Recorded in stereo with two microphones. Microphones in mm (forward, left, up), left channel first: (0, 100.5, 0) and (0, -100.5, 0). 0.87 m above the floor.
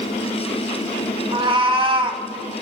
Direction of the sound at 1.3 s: 25° right (ahead or behind).